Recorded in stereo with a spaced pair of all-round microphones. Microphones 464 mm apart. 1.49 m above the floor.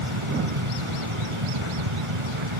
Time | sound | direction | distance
0.0 | a fan | 85° right | ?